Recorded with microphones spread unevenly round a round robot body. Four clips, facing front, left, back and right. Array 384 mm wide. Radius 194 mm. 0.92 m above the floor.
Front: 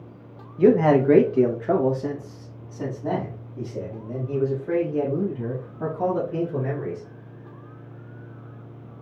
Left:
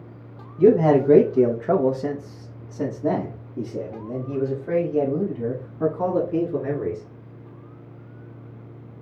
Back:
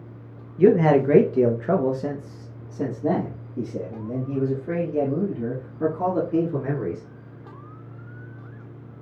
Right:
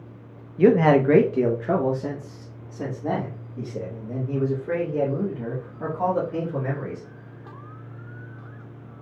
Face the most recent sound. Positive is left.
turn(degrees=140)